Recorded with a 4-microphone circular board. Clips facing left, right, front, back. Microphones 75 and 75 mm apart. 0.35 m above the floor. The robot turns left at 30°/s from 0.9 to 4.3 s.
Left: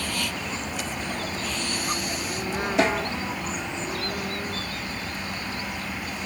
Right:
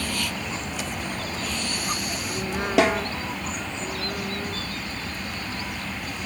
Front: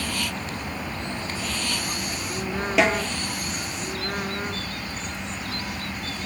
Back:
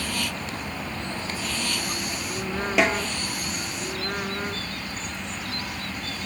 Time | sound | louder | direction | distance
2.8 | a snare drum | right 3 dB, front 2 dB | 90° right | 1.8 m